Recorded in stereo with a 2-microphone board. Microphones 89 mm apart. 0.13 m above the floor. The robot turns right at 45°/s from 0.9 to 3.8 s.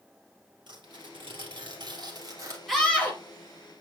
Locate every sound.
0.7 s tearing paper: 110° right, 2.5 m; by 2.6 s 35° right, 2.5 m
2.7 s a scream: centre (ahead or behind), 3 m; by 3.2 s 20° left (ahead or behind), 3 m